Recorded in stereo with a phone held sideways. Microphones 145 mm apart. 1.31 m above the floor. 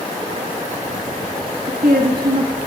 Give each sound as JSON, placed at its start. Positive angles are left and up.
{"t": 1.7, "sound": "a woman speaking", "side_deg": -85, "distance_m": 1.5}